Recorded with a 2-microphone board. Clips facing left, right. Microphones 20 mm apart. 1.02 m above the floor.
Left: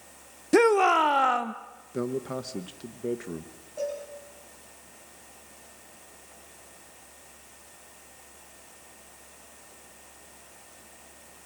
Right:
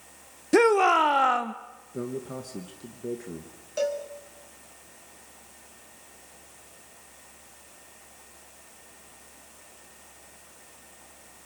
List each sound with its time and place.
0.5 s a shout: centre (ahead or behind), 0.5 m
1.9 s a man speaking: 30° left (ahead or behind), 1.2 m
3.8 s a cowbell: 60° right (ahead or behind), 4.5 m